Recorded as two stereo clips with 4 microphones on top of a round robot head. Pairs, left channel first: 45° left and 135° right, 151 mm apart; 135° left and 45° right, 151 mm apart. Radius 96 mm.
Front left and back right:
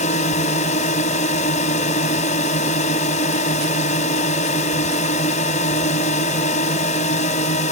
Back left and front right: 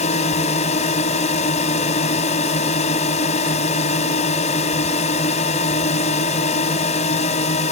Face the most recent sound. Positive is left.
turn(degrees=90)